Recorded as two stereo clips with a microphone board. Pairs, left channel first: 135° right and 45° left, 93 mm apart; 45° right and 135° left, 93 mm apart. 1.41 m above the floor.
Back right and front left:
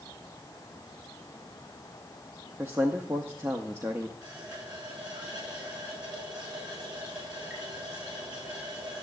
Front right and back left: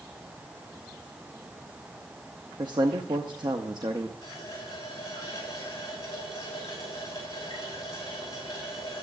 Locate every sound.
2.6 s a man speaking: 105° left, 0.8 m
4.2 s a running tap: 5° left, 5.5 m